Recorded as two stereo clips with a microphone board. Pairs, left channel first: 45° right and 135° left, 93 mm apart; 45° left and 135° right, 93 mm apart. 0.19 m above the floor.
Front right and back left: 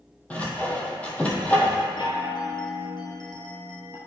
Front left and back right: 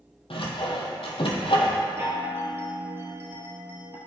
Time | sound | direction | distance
0.3 | sawing | 30° left | 1.1 m
2.0 | a chime | 70° right | 1.1 m